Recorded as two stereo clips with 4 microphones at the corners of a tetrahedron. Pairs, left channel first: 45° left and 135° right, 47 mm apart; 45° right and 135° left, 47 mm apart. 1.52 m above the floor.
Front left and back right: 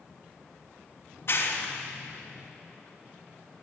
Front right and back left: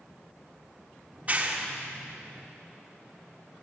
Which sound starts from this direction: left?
A clap, at 1.1 s.